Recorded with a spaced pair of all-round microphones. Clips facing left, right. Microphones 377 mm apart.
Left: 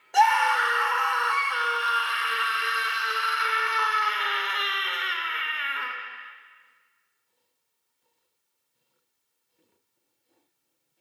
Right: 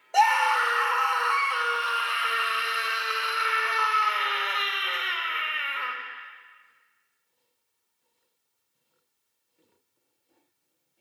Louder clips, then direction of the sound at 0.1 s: Left 1 dB; 25° left (ahead or behind).